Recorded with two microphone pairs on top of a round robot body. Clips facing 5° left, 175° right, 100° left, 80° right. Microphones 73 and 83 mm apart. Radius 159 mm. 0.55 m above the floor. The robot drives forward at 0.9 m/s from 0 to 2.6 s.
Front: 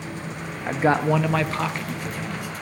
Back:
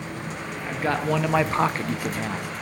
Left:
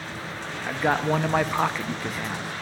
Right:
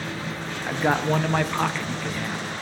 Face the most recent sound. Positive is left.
turn(degrees=175)